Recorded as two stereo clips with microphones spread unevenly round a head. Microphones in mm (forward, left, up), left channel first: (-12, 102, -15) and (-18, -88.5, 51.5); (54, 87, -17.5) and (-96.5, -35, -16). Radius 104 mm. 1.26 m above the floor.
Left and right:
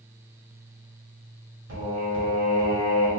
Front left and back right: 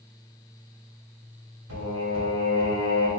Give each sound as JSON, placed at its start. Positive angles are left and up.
{"t": 1.7, "sound": "singing", "azimuth_deg": -110, "distance_m": 1.7}